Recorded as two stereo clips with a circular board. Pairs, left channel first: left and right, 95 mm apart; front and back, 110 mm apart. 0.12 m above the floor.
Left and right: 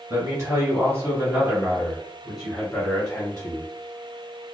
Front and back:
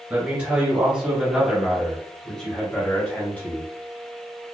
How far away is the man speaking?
About 1.8 m.